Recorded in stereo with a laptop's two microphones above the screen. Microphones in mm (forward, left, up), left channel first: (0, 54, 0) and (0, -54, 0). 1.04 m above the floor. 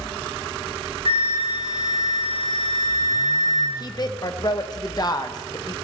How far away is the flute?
About 3.5 m.